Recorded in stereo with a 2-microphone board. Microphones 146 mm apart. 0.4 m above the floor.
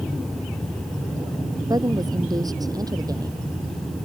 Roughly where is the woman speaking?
Right.